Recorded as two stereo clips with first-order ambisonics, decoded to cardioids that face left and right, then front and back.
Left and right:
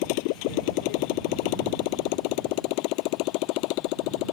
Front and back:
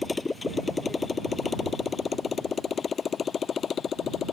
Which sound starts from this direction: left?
A motorcycle, at 0.0 s.